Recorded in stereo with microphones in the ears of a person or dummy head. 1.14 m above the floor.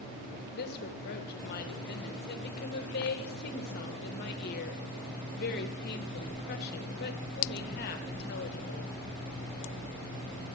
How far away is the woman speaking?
About 1.1 m.